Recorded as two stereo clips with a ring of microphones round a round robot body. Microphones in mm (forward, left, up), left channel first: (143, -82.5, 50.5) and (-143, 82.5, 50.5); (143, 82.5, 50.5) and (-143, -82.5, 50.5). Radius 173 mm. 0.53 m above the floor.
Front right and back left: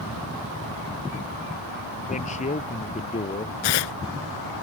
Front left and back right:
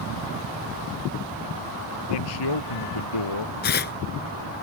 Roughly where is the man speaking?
Ahead left.